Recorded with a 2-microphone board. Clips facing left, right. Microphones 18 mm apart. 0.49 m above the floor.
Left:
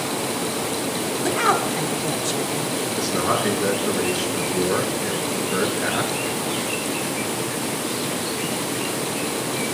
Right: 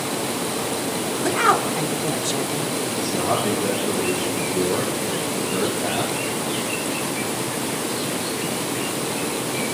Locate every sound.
1.2 s a woman speaking: 10° right (ahead or behind), 1.6 m
3.0 s a man speaking: 55° left (ahead or behind), 7 m